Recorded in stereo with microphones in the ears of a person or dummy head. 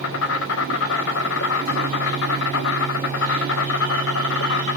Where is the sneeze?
No sneeze in this recording.